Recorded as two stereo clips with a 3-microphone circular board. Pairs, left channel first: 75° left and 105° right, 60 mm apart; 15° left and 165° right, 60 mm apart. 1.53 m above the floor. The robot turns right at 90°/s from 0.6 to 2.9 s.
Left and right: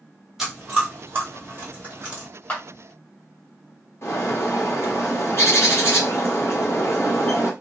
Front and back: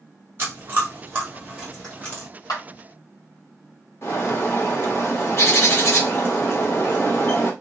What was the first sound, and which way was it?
Chewing, straight behind.